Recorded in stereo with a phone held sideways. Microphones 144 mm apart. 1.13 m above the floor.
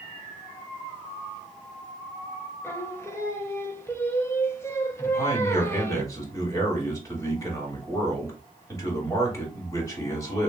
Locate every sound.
2.6 s singing: 20° left (ahead or behind), 0.7 m
5.0 s a man speaking: 20° left (ahead or behind), 1.9 m